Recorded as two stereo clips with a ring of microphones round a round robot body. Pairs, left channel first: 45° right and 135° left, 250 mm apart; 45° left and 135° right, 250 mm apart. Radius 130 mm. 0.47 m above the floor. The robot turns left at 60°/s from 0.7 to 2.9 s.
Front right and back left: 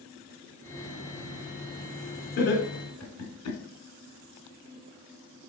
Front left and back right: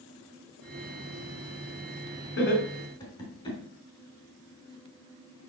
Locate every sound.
2.4 s laughter: 5° left, 3 m; by 3.6 s 25° right, 3 m